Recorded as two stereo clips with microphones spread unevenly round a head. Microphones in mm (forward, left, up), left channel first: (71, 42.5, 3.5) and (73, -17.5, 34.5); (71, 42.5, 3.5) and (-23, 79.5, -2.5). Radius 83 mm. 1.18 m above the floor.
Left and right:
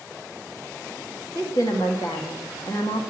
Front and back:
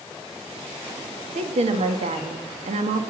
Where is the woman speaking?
150° left, 1.5 m.